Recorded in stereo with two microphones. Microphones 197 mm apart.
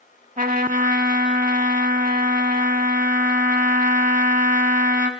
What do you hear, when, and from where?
0.4 s a trumpet: 45° right (ahead or behind), 0.8 m